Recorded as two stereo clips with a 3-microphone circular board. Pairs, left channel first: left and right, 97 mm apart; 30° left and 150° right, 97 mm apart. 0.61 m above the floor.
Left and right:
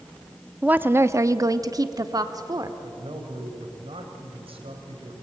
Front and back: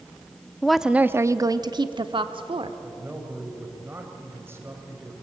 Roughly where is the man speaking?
Right.